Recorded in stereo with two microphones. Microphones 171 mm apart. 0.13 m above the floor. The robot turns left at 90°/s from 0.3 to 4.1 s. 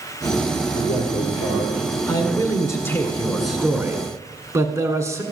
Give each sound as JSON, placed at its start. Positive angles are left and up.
{"t": 0.8, "sound": "a man speaking", "azimuth_deg": 140, "distance_m": 5.5}
{"t": 2.1, "sound": "a man speaking", "side_deg": 15, "distance_m": 1.6}